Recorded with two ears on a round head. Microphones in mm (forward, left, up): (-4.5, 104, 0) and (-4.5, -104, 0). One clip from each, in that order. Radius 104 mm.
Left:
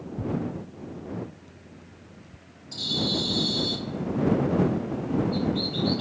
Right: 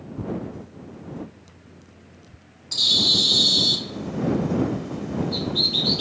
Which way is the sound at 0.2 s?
35° right (ahead or behind).